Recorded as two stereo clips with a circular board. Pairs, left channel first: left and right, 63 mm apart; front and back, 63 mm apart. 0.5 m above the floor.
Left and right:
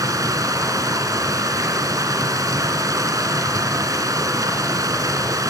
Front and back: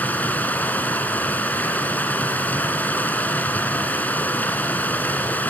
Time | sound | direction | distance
0.0 | running water | 65° right | 2.5 m